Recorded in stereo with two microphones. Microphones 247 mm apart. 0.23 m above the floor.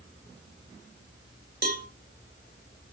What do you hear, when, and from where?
1.6 s a cowbell: 40° right (ahead or behind), 1.8 m